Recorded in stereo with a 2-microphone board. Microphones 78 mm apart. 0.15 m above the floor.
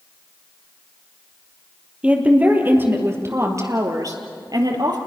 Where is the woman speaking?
15° right (ahead or behind), 3.5 m; by 5.0 s 65° right (ahead or behind), 3.5 m.